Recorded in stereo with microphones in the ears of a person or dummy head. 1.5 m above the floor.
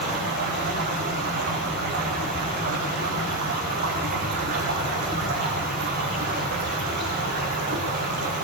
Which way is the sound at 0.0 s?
55° right (ahead or behind).